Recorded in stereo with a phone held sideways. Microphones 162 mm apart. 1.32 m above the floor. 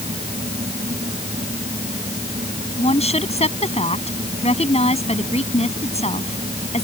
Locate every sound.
0.0 s a fan: 40° right (ahead or behind)
2.8 s a woman speaking: 40° left (ahead or behind)